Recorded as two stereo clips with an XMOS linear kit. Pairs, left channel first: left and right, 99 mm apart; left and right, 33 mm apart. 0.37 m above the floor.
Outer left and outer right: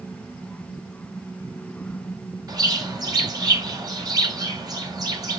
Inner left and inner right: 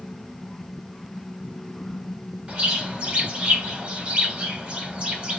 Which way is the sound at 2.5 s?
40° right (ahead or behind).